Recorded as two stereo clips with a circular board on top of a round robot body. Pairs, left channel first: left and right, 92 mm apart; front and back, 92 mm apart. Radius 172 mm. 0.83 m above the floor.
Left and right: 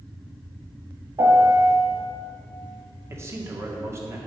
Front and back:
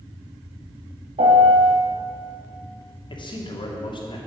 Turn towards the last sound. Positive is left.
turn(degrees=-30)